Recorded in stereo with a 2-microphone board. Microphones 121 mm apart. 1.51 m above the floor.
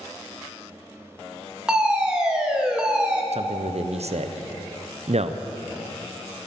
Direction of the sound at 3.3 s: 70° right (ahead or behind).